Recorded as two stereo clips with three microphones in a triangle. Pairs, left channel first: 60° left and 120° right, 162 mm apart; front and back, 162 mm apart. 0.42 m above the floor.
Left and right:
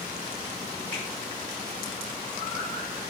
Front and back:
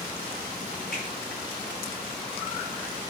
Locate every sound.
0.9 s a finger snap: 20° right, 6.5 m